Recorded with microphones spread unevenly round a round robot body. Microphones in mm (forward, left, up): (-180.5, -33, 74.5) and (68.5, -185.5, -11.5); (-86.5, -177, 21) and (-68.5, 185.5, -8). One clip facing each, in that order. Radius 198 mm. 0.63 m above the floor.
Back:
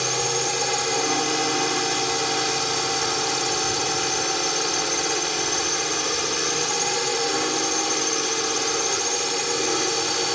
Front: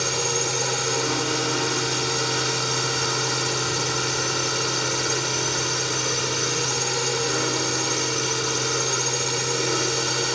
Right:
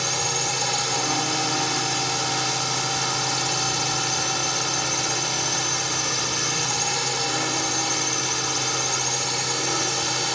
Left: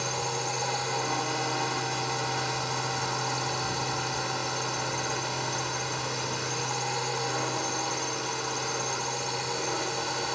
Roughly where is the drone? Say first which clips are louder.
Even, right 3 dB; behind right.